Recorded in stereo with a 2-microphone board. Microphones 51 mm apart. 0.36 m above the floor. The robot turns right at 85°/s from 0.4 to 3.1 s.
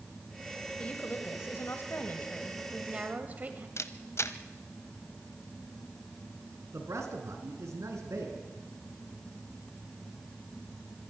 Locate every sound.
0.8 s a woman speaking: 25° left, 2 m; by 3.7 s 140° right, 2 m
3.8 s a camera shutter: 65° left (ahead or behind), 1.1 m
6.7 s a man speaking: 70° right (ahead or behind), 4 m